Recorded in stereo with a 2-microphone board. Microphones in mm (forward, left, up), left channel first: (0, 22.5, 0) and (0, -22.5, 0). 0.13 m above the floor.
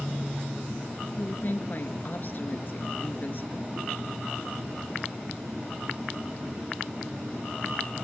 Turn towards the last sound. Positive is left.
turn(degrees=45)  # may be behind; listen again after turning